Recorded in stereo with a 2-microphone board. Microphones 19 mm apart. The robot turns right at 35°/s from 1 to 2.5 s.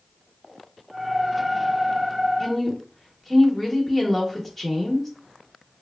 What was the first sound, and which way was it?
A woman speaking, 15° left (ahead or behind).